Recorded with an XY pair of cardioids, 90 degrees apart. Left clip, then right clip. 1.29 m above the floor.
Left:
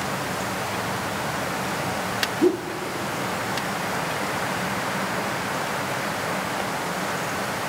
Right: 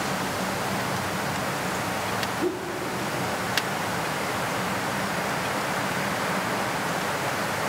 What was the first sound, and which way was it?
A whoosh, 60° left.